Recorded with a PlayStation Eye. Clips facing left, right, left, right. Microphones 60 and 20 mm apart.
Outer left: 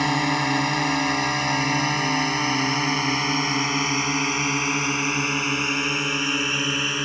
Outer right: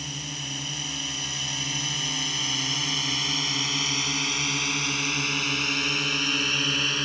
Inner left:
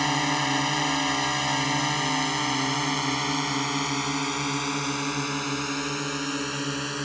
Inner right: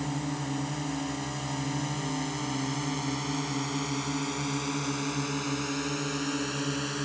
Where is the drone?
65° left (ahead or behind); by 7.0 s 15° left (ahead or behind).